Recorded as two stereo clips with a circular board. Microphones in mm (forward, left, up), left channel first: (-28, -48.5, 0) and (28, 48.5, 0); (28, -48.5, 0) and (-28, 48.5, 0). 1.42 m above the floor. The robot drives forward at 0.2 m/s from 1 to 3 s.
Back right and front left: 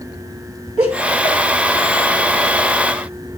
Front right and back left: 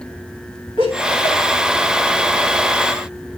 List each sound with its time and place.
0.8 s laughter: 95° right, 4.5 m; by 3.4 s 100° right, 4.5 m